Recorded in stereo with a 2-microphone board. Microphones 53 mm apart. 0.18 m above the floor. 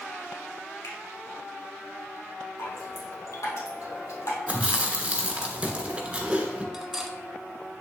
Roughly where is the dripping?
Left.